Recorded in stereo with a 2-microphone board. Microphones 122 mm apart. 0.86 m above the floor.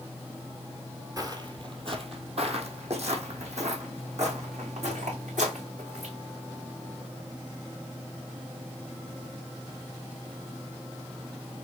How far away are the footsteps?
About 1.2 m.